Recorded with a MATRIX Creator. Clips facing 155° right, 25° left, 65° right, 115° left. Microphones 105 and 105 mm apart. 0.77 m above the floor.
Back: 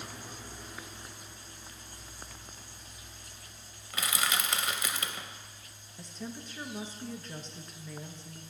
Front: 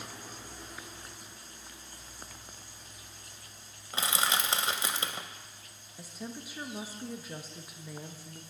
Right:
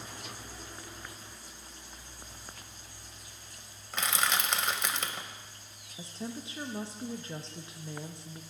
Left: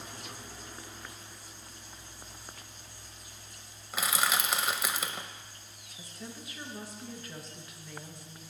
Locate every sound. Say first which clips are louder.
3.9 s crushing: front 2 dB, left 1 dB; 35° left, 0.6 m
6.0 s a woman speaking: even, right 6 dB; 50° right, 0.6 m